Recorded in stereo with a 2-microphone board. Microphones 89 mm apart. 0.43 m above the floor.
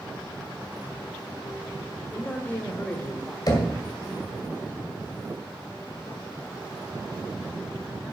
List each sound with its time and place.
2.1 s a man speaking: 20° left (ahead or behind), 1.7 m
3.5 s knocking: 45° left (ahead or behind), 1.9 m